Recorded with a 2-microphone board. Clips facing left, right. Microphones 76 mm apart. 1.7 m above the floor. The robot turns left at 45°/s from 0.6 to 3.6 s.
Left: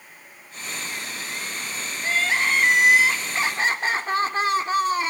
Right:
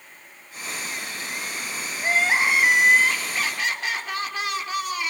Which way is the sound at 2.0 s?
145° right.